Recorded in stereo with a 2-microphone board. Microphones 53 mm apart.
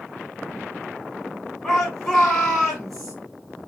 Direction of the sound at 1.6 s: 10° left (ahead or behind).